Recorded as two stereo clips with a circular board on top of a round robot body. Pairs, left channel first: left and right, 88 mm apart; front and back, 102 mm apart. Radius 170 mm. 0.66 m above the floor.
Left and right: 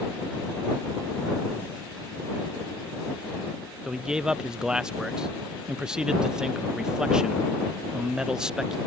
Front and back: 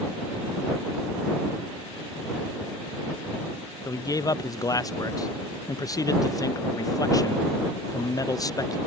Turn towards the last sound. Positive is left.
turn(degrees=-15)